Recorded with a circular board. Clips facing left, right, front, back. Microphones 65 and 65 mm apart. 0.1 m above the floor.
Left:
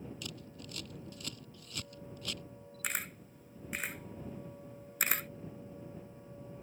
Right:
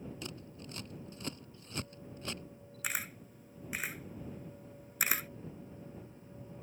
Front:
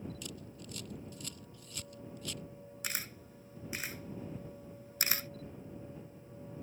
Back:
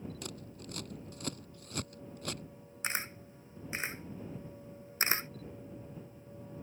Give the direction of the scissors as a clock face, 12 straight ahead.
5 o'clock.